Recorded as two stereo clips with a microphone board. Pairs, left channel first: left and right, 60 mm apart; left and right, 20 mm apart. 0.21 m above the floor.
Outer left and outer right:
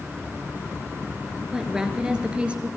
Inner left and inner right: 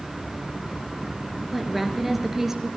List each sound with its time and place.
1.5 s a woman speaking: 10° right (ahead or behind), 3 m; by 2.7 s 20° right (ahead or behind), 3 m